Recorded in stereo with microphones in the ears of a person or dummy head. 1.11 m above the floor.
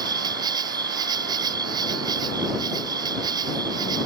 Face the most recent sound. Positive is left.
turn(degrees=-25)  # may be behind; listen again after turning